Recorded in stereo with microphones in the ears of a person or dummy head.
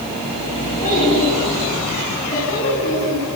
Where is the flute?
I don't hear a flute.